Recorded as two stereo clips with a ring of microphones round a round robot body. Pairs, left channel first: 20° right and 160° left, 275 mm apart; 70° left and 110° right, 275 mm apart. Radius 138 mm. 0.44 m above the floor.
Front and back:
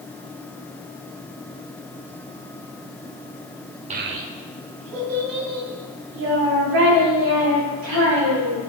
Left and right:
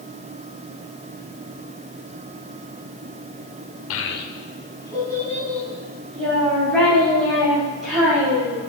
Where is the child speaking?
95° left, 0.8 m; by 8.6 s 160° left, 7 m.